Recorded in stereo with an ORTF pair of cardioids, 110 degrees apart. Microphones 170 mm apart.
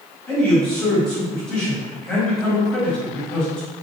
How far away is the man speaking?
About 1.2 m.